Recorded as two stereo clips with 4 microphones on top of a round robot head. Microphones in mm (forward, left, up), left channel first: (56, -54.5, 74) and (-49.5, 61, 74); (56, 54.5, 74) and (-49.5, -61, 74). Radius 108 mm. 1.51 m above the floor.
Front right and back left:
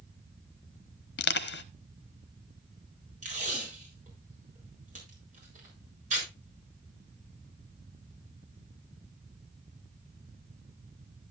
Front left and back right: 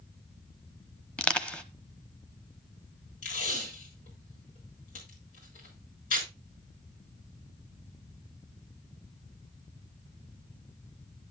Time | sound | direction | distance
1.2 | crushing | 35° right | 0.8 m
3.2 | tape being pulled | 90° left | 7 m